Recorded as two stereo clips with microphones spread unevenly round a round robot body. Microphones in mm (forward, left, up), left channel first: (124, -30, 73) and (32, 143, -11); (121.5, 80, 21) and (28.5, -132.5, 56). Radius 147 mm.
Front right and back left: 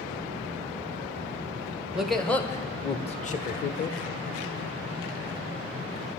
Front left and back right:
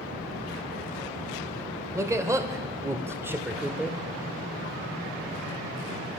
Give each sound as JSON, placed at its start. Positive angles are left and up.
{"t": 1.9, "sound": "a man speaking", "azimuth_deg": 165, "distance_m": 1.1}